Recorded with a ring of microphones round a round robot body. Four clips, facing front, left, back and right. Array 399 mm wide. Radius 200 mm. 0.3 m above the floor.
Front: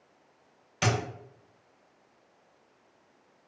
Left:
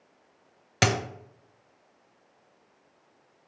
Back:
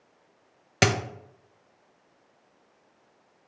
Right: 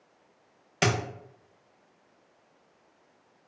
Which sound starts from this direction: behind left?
A dropped coin, at 0.8 s.